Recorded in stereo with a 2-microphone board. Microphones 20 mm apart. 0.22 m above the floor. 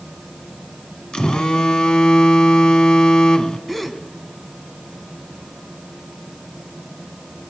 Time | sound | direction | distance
1.1 | a phone buzzing | 50° left (ahead or behind) | 1.3 m
3.7 | a gasp | 10° left (ahead or behind) | 1.5 m